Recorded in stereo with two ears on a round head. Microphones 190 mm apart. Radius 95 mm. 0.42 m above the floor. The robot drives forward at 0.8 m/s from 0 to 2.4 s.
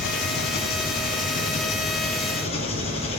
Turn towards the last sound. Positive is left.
turn(degrees=30)  # may be behind; listen again after turning